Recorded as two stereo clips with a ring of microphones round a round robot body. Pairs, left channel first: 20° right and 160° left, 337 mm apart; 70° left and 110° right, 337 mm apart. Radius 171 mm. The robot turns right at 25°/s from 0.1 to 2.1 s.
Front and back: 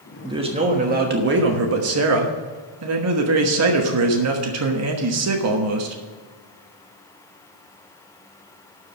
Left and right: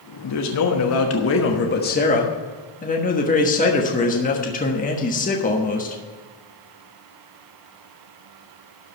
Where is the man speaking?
80° left, 1.3 m; by 6.0 s 130° left, 1.3 m.